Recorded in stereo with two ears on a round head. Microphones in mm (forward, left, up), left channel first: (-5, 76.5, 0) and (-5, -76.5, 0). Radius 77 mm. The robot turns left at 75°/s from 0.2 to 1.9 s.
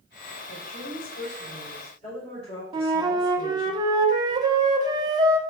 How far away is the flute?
About 1.2 m.